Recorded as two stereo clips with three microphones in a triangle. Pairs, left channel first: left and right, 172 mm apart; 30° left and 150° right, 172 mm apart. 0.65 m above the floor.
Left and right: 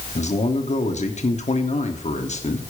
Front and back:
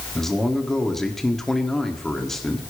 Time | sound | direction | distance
0.1 | a man speaking | 115° left | 1.6 m